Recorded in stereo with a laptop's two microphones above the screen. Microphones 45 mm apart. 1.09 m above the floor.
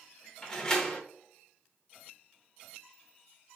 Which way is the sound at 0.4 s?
20° left (ahead or behind).